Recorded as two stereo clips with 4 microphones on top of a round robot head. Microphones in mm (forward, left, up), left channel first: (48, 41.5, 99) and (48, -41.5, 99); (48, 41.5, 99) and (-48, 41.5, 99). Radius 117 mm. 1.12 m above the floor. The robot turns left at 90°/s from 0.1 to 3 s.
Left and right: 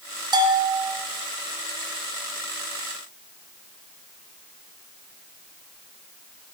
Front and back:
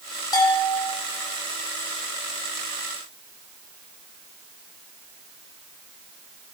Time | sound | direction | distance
0.3 | a bell | 55° right | 0.9 m